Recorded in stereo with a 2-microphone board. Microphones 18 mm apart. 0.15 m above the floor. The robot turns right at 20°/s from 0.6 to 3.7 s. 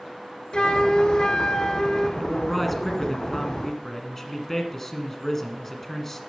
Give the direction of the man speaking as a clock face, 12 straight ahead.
12 o'clock.